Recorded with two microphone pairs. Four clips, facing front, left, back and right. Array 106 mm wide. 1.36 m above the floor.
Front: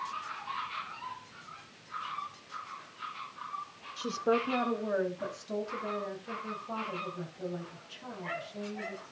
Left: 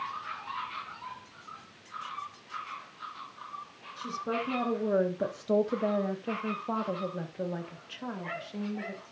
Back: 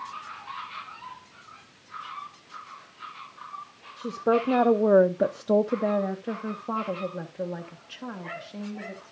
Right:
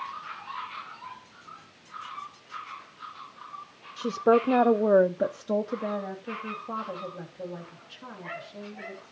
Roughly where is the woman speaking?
Right.